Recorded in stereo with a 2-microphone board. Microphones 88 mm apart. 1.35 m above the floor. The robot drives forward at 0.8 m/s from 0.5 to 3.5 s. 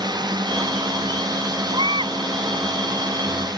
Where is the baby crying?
65° right (ahead or behind); by 2.2 s 70° right (ahead or behind).